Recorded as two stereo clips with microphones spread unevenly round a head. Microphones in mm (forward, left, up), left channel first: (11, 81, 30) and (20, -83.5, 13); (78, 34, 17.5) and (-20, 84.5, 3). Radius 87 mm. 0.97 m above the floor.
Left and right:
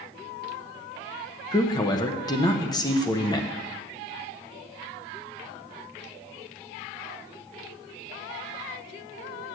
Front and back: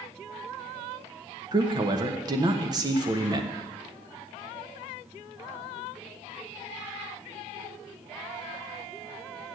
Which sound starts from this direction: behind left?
A man speaking, at 1.5 s.